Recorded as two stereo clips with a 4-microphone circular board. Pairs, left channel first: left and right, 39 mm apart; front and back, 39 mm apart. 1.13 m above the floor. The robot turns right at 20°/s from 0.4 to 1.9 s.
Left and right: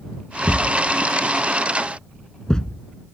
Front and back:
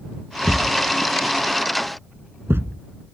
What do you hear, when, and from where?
0.5 s a thud: 130° left; by 2.8 s 160° left